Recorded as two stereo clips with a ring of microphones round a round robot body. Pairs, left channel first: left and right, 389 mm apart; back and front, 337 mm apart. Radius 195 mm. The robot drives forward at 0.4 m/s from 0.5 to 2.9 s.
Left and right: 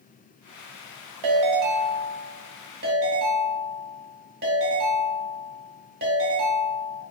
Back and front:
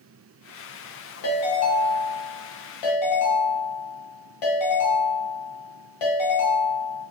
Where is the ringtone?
130° right, 0.6 m; by 7.0 s 155° right, 1.2 m.